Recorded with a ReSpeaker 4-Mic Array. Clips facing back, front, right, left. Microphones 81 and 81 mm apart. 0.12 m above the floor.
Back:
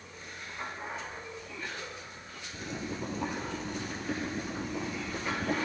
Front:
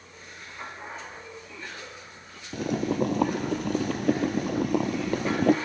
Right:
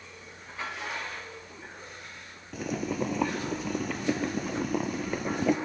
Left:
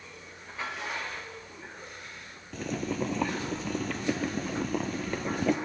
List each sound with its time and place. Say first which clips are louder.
2.5 s boiling: front 12 dB, right 1 dB; 5° right, 0.7 m